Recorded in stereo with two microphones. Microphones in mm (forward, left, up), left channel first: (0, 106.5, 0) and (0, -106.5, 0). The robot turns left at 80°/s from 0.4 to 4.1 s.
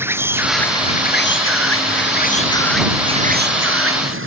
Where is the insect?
170° right; by 4.3 s 105° right.